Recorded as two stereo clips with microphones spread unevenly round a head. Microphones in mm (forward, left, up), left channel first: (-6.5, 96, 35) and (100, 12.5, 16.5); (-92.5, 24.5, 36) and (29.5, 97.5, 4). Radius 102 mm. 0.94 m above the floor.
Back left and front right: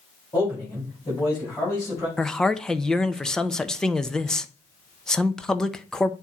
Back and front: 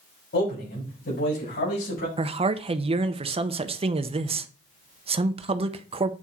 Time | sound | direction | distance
0.3 | a man speaking | 150° right | 4.5 m
2.2 | a man speaking | 50° left | 0.6 m